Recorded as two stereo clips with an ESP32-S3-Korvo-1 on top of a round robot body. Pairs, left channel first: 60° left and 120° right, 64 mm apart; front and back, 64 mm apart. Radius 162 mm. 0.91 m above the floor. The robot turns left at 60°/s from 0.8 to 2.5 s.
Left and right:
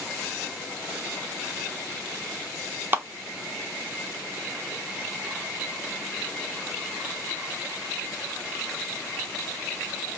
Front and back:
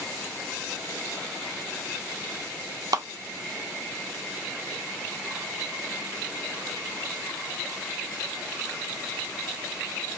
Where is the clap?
175° right, 1.0 m.